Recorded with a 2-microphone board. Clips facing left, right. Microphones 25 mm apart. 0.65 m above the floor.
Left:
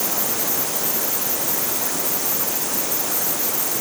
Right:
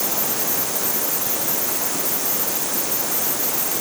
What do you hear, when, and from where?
Only background noise.